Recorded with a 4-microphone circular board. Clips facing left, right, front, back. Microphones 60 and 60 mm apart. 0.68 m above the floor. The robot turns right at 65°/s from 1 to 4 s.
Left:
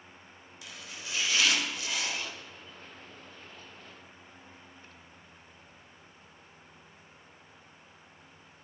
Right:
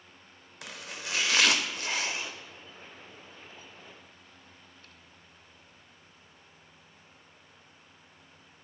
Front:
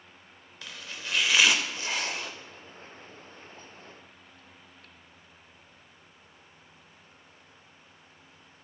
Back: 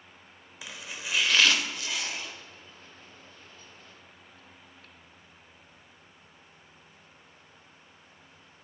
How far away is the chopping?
About 0.6 m.